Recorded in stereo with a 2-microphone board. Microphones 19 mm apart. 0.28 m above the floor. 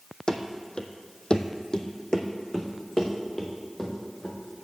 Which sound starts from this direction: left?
Running footsteps, at 0.3 s.